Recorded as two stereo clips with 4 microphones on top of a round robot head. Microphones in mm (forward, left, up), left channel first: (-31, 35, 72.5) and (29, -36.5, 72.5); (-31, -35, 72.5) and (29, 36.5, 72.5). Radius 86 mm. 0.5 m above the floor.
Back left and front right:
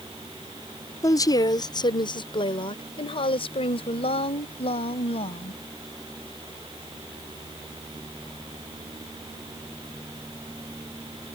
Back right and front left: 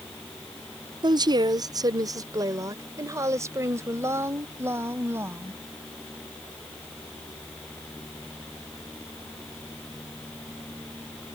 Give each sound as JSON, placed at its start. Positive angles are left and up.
{"t": 1.0, "sound": "a woman speaking", "azimuth_deg": 80}